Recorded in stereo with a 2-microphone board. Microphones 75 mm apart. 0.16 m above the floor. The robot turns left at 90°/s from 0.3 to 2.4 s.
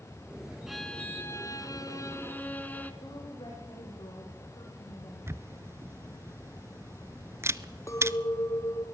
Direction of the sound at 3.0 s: 65° left (ahead or behind).